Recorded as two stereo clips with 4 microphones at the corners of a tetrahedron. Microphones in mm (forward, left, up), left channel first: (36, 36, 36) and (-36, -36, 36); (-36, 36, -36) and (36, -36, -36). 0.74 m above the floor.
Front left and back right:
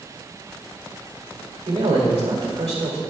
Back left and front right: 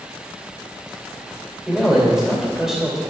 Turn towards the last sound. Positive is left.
turn(degrees=-130)